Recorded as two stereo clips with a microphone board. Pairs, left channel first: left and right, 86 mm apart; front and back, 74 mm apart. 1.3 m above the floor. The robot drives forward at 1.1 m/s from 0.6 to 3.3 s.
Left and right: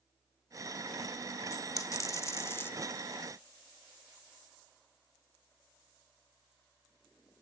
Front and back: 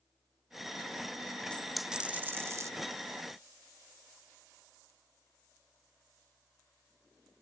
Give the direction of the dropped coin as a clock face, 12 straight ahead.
10 o'clock.